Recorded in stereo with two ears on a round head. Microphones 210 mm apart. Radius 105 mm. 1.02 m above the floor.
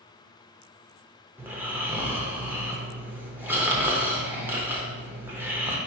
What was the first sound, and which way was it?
Snoring, 10° right (ahead or behind).